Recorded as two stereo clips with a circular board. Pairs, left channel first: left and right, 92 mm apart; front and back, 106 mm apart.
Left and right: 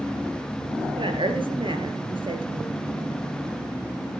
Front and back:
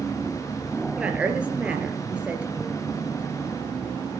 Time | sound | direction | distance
1.0 | a woman speaking | 105° right | 3 m